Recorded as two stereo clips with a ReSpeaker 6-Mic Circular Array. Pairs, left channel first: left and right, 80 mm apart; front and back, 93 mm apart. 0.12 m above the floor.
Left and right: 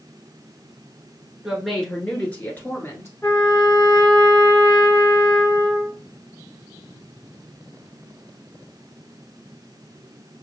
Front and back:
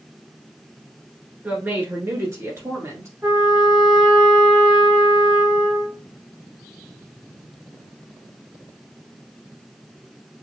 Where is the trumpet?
135° left, 1.9 m.